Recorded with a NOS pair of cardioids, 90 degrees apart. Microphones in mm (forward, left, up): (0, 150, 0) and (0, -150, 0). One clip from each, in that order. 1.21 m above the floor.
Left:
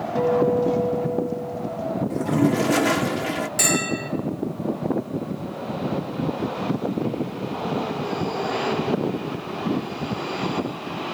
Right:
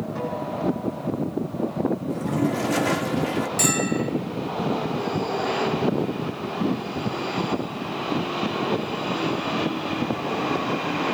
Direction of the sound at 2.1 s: 15° left.